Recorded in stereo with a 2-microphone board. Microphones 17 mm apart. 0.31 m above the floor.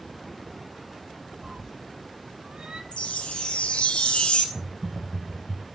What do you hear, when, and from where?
1.4 s a cat meowing: 60° right (ahead or behind), 0.6 m
2.9 s a chime: 65° left (ahead or behind), 1.8 m
4.5 s typing on a keyboard: 60° left (ahead or behind), 4.5 m